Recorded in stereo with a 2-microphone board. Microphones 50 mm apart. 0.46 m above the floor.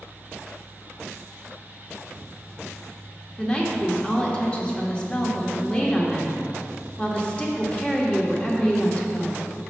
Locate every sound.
3.4 s a woman speaking: 20° left (ahead or behind), 1.2 m